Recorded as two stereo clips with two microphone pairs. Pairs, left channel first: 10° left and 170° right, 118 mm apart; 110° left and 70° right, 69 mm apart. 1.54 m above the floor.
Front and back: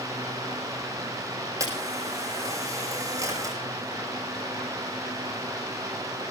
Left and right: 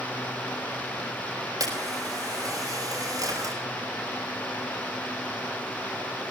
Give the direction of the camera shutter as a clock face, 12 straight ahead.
4 o'clock.